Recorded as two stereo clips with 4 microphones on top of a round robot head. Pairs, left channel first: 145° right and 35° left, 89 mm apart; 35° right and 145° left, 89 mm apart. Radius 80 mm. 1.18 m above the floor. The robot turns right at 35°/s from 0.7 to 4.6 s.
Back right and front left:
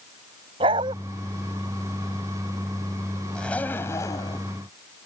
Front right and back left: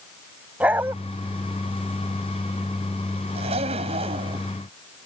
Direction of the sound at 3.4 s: 135° left.